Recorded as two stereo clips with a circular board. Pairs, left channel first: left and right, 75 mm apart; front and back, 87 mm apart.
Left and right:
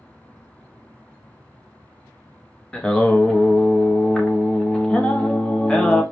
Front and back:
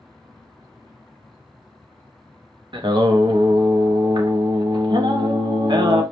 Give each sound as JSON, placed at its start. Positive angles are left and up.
{"t": 2.7, "sound": "singing", "azimuth_deg": 165, "distance_m": 0.6}